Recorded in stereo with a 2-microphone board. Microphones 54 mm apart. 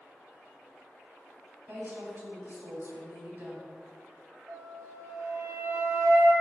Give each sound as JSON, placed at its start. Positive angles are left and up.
{"t": 1.7, "sound": "a woman speaking", "side_deg": -45, "distance_m": 3.5}
{"t": 4.5, "sound": "a flute", "side_deg": -65, "distance_m": 2.5}